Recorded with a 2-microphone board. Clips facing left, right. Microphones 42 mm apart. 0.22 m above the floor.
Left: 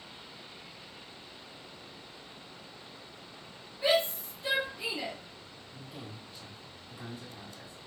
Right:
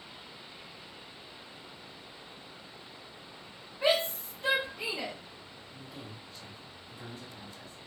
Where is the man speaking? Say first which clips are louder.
Left 1 dB; 10° left (ahead or behind), 1.6 m.